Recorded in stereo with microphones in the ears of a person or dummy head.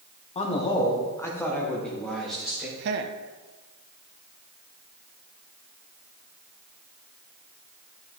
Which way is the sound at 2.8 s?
55° right (ahead or behind).